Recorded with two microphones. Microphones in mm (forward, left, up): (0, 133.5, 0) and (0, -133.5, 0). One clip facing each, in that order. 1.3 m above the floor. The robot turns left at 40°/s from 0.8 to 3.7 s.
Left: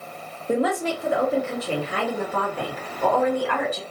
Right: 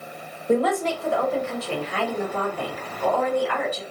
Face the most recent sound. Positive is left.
turn(degrees=55)